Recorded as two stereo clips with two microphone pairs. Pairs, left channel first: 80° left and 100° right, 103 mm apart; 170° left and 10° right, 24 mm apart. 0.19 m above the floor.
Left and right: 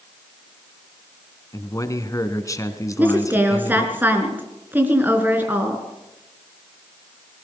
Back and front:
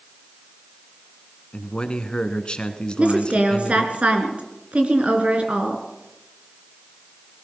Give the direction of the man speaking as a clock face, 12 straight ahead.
8 o'clock.